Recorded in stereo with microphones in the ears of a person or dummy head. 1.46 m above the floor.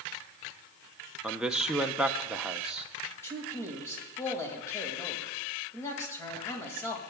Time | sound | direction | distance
1.2 | a man speaking | 5° right (ahead or behind) | 0.7 m
3.2 | a man speaking | 20° left (ahead or behind) | 2 m